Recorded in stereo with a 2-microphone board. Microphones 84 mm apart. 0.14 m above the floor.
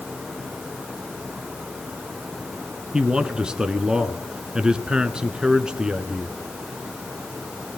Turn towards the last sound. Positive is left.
turn(degrees=-10)  # may be behind; listen again after turning